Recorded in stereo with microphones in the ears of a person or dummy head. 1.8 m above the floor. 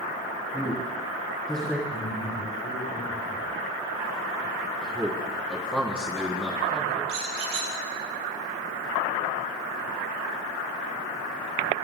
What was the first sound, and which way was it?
A man speaking, 5° left (ahead or behind).